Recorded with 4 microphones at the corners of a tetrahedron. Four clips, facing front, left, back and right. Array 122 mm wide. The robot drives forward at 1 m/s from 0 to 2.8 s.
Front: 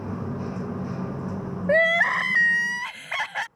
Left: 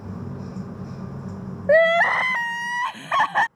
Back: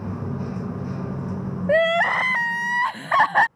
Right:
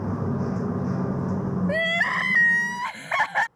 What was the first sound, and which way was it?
Crying, 100° left.